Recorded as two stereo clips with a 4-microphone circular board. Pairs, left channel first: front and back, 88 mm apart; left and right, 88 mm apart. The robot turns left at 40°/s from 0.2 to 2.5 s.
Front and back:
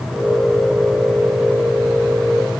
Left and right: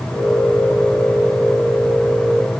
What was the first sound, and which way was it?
Only background noise.